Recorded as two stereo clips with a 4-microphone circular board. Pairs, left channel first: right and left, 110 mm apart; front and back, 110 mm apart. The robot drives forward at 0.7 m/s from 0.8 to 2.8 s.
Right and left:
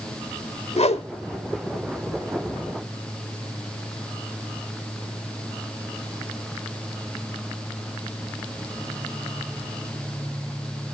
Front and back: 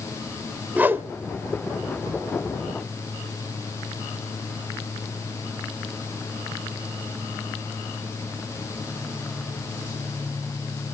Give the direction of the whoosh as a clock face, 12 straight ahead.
4 o'clock.